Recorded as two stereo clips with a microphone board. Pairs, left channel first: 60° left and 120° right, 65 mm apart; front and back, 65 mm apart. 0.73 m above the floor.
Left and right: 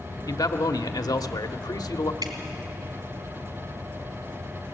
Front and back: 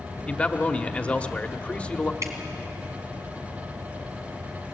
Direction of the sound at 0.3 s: 70° left.